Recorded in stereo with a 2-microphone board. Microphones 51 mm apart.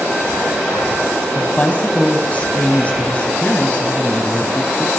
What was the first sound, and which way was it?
A woman speaking, 30° left (ahead or behind).